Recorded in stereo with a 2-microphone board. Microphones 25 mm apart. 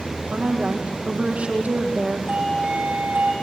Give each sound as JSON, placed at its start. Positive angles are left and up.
{"t": 0.3, "sound": "a woman speaking", "side_deg": -75, "distance_m": 5.0}
{"t": 2.3, "sound": "a doorbell", "side_deg": -70, "distance_m": 6.0}